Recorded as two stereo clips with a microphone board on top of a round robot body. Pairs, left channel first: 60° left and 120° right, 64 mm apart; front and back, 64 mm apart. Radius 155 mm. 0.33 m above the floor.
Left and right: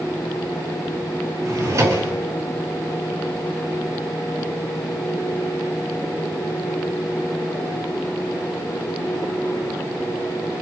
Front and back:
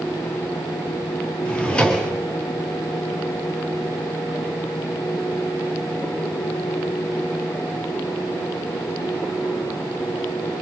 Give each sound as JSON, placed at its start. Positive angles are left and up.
{"t": 1.4, "sound": "a drawer", "azimuth_deg": -70, "distance_m": 2.5}